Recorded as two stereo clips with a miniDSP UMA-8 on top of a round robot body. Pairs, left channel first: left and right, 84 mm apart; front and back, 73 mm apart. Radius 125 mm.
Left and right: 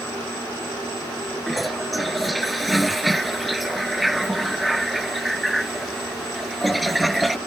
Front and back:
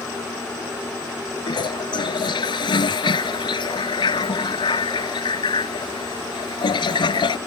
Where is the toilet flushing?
Straight ahead.